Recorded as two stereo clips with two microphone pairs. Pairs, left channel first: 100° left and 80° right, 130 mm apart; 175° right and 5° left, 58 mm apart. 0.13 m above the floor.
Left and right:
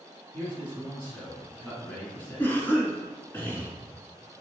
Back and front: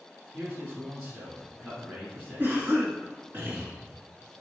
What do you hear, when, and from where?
0.3 s a man speaking: 40° left, 1.5 m
2.4 s a cough: 35° left, 1.3 m